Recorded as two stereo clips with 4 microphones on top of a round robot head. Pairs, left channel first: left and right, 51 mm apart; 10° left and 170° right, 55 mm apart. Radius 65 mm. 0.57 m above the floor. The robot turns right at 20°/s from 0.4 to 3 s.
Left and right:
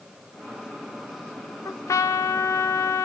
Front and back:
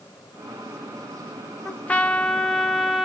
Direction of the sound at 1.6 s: 70° left.